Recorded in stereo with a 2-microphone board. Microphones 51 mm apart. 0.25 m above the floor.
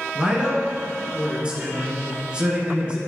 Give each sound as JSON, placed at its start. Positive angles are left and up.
{"t": 0.1, "sound": "a man speaking", "side_deg": -20, "distance_m": 2.5}